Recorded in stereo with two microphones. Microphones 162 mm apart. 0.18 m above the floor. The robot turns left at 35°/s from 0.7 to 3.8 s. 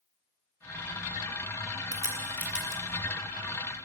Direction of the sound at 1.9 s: 25° right (ahead or behind).